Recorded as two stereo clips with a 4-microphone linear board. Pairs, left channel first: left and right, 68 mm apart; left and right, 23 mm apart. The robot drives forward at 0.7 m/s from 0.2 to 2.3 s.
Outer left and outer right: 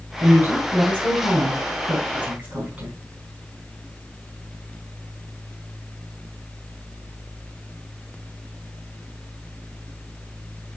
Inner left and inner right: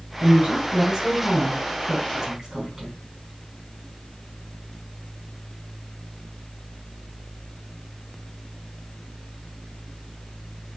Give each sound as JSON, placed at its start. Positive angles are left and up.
{"t": 0.2, "sound": "a woman speaking", "side_deg": -25, "distance_m": 3.0}